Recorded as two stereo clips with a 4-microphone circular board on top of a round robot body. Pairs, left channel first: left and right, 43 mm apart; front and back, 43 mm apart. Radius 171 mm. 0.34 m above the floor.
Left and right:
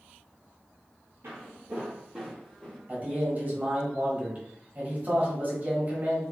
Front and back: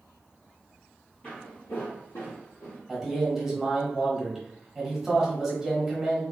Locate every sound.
1.2 s footsteps: 65° right, 0.6 m; by 2.8 s 5° left, 1.1 m
2.9 s a man speaking: 95° right, 1.5 m